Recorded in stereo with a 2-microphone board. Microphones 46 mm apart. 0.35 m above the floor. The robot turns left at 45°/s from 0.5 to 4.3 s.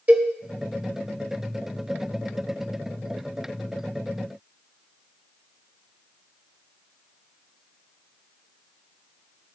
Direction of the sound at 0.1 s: 40° right (ahead or behind).